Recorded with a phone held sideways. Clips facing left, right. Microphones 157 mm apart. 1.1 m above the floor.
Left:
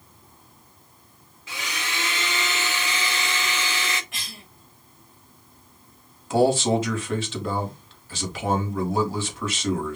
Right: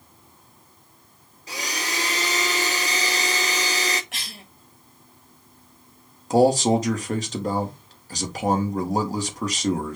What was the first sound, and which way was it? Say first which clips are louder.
A blender: right 3 dB; 40° right (ahead or behind).